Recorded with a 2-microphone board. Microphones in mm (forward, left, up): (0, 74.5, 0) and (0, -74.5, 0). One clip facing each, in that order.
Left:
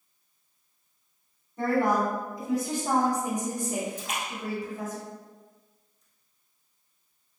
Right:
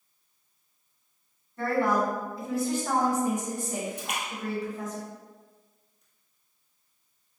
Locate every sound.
1.6 s a woman speaking: 20° left (ahead or behind), 1.9 m; by 5.0 s 10° left (ahead or behind), 1.8 m
4.0 s a splash: 65° right (ahead or behind), 1.4 m